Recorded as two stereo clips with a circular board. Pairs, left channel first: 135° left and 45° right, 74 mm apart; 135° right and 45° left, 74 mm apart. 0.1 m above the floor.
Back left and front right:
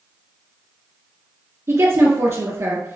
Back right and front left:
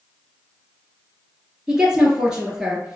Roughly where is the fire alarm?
I don't hear a fire alarm.